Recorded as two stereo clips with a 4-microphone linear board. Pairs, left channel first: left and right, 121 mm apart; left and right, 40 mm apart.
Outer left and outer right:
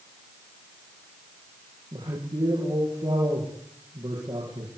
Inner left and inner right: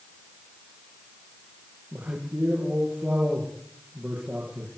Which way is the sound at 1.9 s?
35° right (ahead or behind).